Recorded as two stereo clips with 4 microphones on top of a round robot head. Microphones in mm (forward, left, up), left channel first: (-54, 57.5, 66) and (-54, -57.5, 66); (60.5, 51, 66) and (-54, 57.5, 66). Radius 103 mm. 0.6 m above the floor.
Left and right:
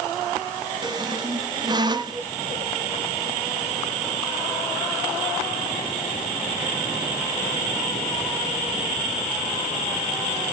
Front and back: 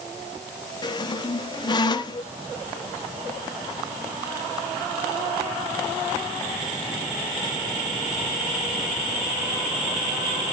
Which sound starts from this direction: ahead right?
A squeak, at 0.8 s.